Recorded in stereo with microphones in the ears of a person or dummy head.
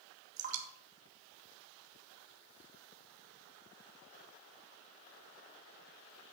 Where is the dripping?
40° right (ahead or behind), 2.5 m.